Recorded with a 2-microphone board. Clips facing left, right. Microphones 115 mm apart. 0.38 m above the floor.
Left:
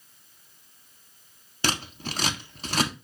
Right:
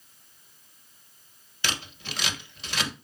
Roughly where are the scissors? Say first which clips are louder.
Left 5 dB; left.